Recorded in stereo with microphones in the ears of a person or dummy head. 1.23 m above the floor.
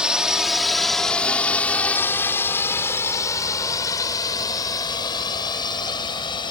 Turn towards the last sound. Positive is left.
turn(degrees=25)  # may be behind; listen again after turning